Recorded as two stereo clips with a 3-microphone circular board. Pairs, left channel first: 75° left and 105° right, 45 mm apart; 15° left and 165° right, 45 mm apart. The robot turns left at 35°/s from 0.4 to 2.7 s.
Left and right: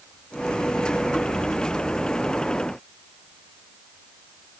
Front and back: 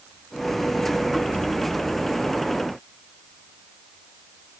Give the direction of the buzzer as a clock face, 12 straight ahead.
I don't hear a buzzer.